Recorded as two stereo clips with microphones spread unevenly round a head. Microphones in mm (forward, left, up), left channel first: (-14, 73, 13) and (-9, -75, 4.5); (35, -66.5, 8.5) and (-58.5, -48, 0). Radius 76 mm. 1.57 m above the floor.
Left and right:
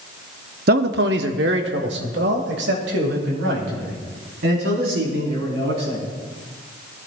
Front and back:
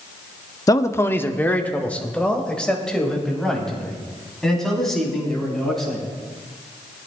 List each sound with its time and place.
0.7 s a man speaking: 65° right, 0.8 m; by 6.0 s 100° right, 6 m